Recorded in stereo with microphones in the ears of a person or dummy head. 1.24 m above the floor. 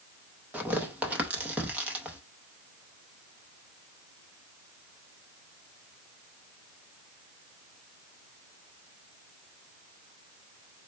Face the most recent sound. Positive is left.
turn(degrees=-10)  # may be behind; listen again after turning